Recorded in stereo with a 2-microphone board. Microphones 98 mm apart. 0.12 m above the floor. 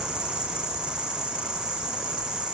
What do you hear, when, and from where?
0.0 s an insect: 10° right (ahead or behind)